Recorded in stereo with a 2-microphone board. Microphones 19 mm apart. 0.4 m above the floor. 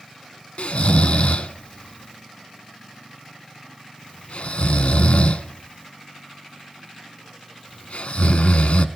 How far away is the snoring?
About 0.5 m.